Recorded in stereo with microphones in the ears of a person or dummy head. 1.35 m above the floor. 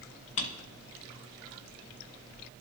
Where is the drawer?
35° left (ahead or behind), 0.7 m.